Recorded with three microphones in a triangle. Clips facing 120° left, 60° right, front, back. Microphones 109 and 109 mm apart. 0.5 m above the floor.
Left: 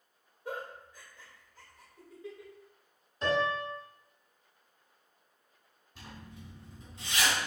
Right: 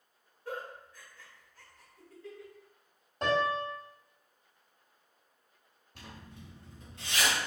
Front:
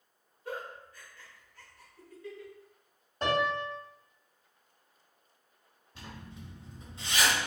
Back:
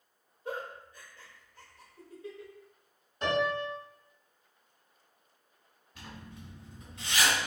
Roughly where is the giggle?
Behind left.